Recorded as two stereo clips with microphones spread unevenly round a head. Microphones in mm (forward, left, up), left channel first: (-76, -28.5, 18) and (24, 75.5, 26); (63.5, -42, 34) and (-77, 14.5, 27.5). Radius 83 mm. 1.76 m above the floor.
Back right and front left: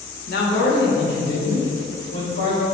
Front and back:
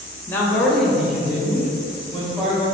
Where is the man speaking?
95° right, 0.9 m; by 2.6 s 125° right, 3 m.